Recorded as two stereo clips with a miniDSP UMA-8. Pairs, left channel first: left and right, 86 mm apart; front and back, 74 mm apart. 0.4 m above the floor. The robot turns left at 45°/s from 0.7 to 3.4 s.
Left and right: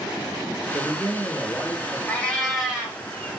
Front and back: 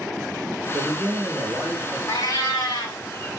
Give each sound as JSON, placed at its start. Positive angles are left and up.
{"t": 0.7, "sound": "a man speaking", "azimuth_deg": -155, "distance_m": 0.8}
{"t": 2.1, "sound": "a cat meowing", "azimuth_deg": 20, "distance_m": 1.4}